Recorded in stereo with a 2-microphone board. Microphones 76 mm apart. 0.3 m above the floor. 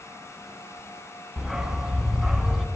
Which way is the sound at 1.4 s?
5° right (ahead or behind).